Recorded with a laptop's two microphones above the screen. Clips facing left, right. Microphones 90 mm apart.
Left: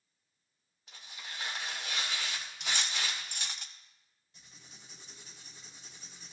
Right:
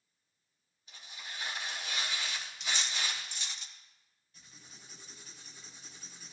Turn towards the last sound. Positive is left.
turn(degrees=25)  # may be behind; listen again after turning